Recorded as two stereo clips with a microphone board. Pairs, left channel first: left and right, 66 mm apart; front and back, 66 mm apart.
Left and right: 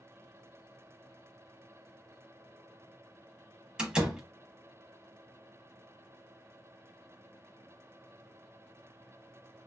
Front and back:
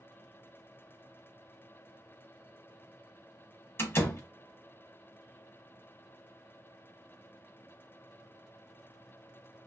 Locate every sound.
3.8 s a door slam: 20° right, 0.9 m